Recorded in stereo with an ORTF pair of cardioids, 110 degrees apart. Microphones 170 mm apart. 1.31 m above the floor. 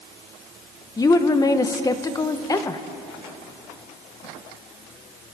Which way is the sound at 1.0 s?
20° left.